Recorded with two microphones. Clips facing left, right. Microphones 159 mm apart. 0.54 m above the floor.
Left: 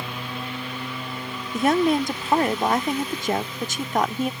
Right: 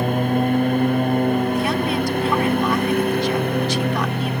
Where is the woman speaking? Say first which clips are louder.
Left 1 dB; 45° left (ahead or behind).